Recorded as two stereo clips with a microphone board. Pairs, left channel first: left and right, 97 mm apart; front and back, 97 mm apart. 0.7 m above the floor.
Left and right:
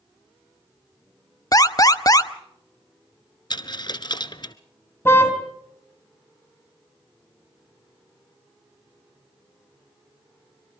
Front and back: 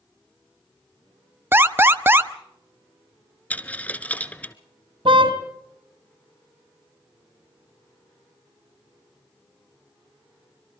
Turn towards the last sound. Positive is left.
turn(degrees=155)